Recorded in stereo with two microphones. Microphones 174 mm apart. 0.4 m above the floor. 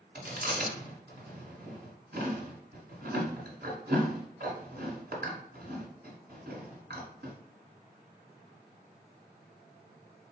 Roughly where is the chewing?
Right.